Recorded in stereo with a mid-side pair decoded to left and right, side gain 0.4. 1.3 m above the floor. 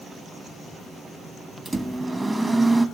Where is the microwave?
30° right, 1.0 m.